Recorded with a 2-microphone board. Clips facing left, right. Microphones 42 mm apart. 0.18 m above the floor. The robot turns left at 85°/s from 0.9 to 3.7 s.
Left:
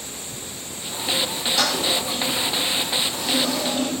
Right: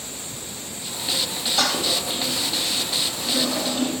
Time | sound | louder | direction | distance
1.6 | a toilet flushing | even | 5° right (ahead or behind) | 3.5 m